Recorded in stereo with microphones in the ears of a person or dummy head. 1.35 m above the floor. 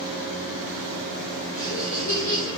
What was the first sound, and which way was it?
Laughter, 40° left (ahead or behind).